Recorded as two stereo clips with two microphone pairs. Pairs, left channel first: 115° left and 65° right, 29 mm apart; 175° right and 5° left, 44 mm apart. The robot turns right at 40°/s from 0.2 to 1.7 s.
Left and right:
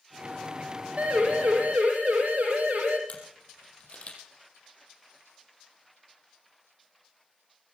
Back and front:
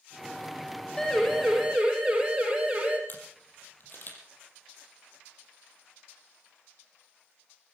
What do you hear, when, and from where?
1.0 s a siren: 105° right, 5 m; by 3.0 s 60° right, 4.5 m
3.1 s a camera shutter: 150° left, 5 m